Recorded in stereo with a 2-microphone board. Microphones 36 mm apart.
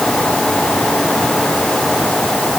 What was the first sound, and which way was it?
Only background noise.